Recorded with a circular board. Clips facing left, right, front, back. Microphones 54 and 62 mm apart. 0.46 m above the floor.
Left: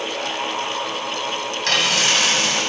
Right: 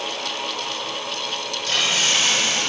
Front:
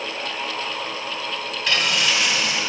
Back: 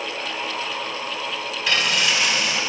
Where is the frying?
90° left, 2 m.